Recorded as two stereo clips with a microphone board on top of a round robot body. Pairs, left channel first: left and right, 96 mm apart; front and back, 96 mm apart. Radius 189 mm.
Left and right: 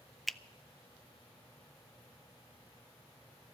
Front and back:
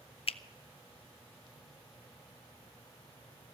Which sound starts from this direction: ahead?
A finger snap, at 0.3 s.